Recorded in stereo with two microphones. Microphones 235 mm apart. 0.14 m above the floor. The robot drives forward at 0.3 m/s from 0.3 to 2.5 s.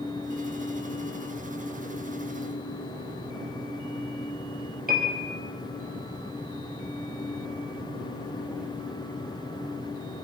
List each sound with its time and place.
4.9 s a piano: 40° right (ahead or behind), 2.5 m